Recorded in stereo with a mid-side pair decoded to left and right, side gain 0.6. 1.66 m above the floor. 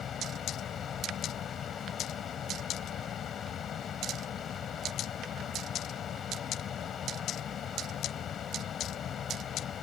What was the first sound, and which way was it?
A fan, 40° left.